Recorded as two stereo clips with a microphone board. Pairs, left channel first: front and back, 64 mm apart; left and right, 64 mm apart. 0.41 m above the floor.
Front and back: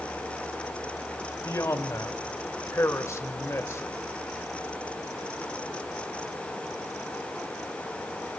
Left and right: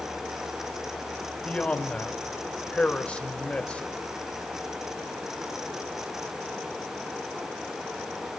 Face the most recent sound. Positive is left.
turn(degrees=25)